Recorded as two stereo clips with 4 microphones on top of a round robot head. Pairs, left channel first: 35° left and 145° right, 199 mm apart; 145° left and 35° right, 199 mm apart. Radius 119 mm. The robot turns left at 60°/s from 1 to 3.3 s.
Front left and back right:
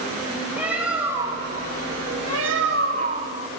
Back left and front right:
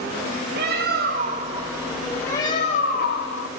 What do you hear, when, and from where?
0.6 s a bird: 65° right, 1.2 m; by 3.5 s 160° left, 1.2 m